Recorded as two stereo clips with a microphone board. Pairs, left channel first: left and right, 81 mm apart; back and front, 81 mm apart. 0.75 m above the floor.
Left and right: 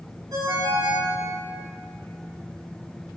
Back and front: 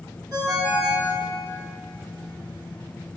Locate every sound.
0.3 s a ringtone: 45° right, 1.9 m